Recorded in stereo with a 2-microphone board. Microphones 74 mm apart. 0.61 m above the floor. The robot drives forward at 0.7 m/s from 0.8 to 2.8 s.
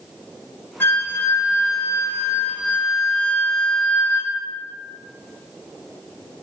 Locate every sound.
0.8 s a flute: 30° left (ahead or behind), 0.8 m; by 4.3 s 25° left (ahead or behind), 1.0 m